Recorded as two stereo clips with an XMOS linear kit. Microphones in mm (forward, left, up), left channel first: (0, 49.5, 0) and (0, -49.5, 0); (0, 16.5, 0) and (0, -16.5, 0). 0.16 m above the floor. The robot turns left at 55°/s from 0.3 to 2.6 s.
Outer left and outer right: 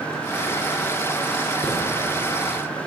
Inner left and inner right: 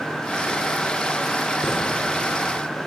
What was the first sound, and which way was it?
A chime, 25° right (ahead or behind).